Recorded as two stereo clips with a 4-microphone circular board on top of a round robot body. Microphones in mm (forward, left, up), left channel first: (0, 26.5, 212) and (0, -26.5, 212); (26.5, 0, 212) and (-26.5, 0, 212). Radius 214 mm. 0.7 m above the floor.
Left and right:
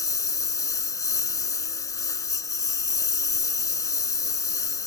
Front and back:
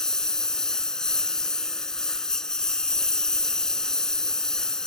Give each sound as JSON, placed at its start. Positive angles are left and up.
{"t": 0.0, "sound": "a lawn mower", "azimuth_deg": 80}